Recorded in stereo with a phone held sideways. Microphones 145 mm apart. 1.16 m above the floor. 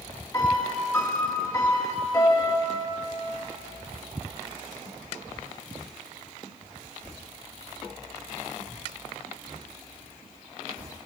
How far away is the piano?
About 1.7 m.